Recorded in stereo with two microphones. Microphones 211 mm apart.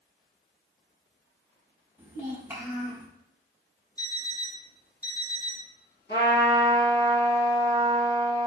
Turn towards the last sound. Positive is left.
turn(degrees=50)  # may be behind; listen again after turning